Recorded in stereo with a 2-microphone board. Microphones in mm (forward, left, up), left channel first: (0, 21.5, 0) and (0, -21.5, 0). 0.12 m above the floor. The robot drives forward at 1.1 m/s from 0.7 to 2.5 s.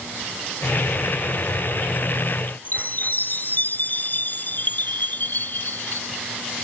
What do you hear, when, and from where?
2.6 s a chime: 45° left (ahead or behind)